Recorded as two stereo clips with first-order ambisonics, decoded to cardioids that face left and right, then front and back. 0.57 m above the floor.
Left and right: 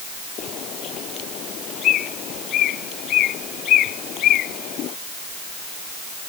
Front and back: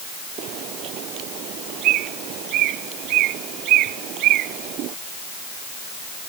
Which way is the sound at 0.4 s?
140° left.